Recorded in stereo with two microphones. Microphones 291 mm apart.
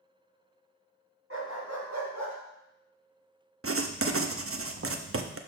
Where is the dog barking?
50° right (ahead or behind), 2.5 m; by 2.4 s 70° right (ahead or behind), 1.4 m.